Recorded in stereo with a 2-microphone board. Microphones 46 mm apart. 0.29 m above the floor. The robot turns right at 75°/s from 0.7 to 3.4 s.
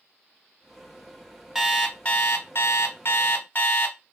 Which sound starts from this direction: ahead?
An alarm clock, at 1.6 s.